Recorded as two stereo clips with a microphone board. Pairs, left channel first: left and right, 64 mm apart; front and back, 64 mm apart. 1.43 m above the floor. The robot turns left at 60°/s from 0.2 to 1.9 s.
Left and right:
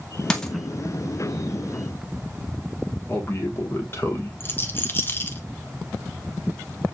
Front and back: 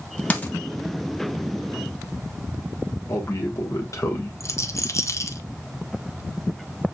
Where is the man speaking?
40° left, 1.1 m.